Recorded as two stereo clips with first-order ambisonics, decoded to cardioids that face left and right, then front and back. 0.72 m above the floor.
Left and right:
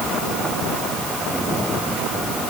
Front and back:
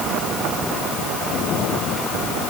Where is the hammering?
I don't hear hammering.